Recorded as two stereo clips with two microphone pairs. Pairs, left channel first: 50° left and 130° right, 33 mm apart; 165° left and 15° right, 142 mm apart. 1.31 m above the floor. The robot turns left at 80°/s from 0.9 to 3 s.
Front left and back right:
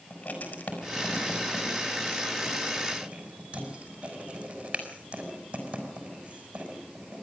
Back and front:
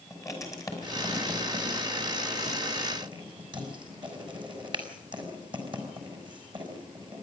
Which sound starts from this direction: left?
Writing, at 0.1 s.